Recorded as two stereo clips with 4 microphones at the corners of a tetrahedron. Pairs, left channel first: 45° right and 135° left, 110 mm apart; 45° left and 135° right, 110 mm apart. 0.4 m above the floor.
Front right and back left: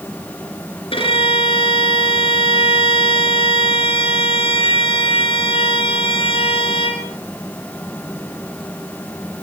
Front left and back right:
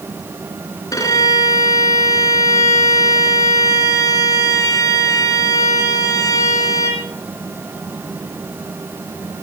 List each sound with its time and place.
0.9 s a violin: 10° right, 3 m